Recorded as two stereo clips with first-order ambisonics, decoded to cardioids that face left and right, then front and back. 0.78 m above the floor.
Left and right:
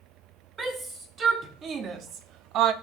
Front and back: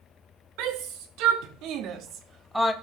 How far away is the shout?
About 2.5 m.